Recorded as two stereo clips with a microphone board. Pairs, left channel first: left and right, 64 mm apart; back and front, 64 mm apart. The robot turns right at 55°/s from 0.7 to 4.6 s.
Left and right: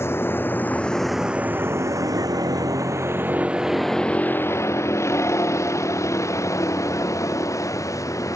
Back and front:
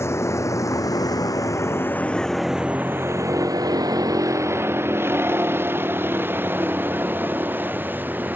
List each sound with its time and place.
0.0 s a vehicle: 135° left; by 8.4 s 60° left